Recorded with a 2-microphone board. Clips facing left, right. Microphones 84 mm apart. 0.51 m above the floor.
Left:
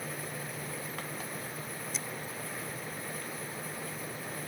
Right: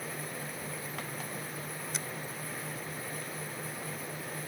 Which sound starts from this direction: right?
A finger snap, at 1.9 s.